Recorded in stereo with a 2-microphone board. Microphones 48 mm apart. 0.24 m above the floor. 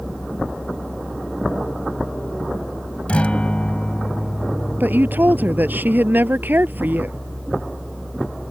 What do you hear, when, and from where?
3.1 s a guitar: 25° left (ahead or behind)
4.8 s a woman speaking: 45° right (ahead or behind)